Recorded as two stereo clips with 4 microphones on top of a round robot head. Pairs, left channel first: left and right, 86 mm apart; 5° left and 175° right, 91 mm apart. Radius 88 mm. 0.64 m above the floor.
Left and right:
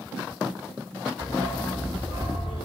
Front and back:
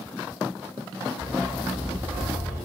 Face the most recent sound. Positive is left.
turn(degrees=120)